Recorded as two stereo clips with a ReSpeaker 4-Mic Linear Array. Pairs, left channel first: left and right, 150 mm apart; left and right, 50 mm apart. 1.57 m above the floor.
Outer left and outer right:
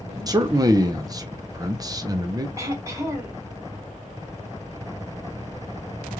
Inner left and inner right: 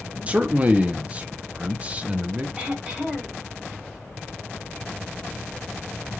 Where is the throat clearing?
20° right (ahead or behind), 1.4 m.